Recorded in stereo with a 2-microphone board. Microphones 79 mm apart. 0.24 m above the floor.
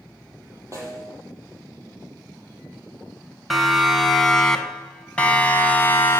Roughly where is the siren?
Centre.